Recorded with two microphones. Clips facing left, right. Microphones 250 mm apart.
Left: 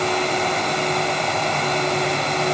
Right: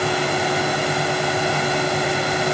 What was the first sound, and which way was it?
Only background noise.